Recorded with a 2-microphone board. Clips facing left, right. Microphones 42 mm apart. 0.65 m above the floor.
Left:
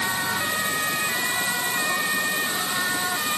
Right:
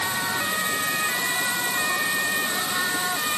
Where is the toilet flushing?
No toilet flushing in this recording.